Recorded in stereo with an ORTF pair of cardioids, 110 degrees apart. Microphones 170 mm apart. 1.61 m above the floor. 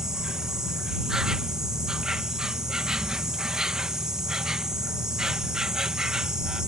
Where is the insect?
5° right.